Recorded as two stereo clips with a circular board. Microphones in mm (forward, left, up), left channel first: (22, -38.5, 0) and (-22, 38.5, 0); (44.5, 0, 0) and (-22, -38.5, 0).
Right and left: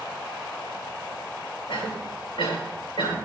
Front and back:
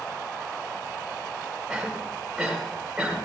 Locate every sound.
1.7 s a cough: 70° right, 4.5 m